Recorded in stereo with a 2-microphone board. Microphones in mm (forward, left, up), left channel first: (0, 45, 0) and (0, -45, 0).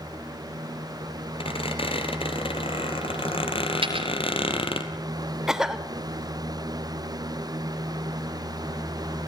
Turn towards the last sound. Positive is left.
turn(degrees=-5)  # may be behind; listen again after turning